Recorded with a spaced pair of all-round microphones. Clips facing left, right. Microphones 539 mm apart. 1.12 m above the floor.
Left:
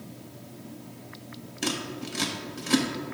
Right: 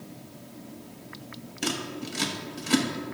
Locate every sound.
1.6 s scissors: centre (ahead or behind), 0.8 m